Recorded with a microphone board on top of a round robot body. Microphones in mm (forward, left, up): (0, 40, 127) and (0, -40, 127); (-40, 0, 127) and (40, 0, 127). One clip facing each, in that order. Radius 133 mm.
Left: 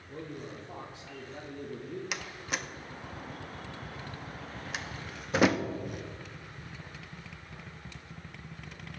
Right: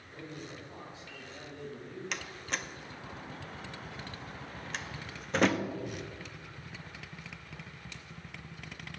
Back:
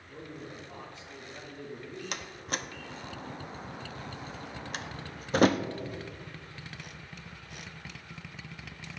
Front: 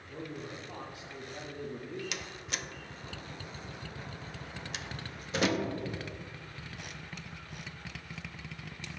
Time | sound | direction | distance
0.1 | a man speaking | 75° left | 2.5 m
2.1 | a door slam | 170° left | 0.8 m